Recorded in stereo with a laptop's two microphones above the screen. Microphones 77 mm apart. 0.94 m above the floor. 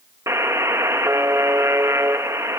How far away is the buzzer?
About 1.0 m.